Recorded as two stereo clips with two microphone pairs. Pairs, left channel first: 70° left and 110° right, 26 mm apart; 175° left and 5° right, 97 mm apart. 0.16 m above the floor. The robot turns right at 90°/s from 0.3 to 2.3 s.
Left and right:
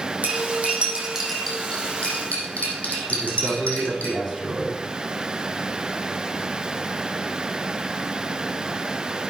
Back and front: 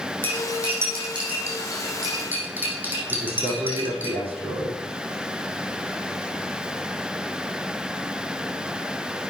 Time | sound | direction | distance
0.2 | cutlery clinking | 115° right | 4.5 m
3.1 | a man speaking | 10° right | 6.5 m